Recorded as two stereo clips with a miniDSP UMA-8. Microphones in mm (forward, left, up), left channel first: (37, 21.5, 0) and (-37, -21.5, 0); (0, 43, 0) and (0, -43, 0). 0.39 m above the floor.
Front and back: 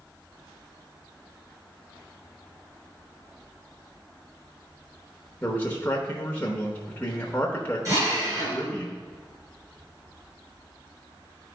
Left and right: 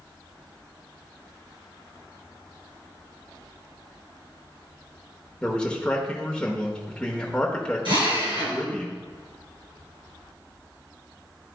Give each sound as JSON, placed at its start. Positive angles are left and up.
{"t": 5.4, "sound": "a man speaking", "azimuth_deg": 30, "distance_m": 1.0}
{"t": 7.8, "sound": "a drill", "azimuth_deg": -100, "distance_m": 3.0}